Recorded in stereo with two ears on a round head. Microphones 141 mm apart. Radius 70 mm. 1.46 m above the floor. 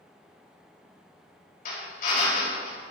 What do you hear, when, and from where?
1.6 s a drill: 60° left (ahead or behind), 4.5 m